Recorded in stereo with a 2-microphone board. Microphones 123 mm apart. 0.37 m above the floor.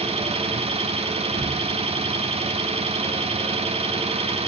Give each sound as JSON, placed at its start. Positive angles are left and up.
{"t": 0.0, "sound": "an engine running", "side_deg": -55, "distance_m": 1.2}